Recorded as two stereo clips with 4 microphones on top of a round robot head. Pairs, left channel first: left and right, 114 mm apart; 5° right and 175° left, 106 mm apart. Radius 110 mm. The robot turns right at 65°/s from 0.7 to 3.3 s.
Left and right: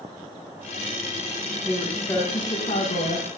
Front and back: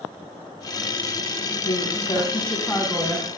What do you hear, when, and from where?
1.6 s a woman speaking: 5° left, 5.5 m; by 3.3 s 110° left, 5.5 m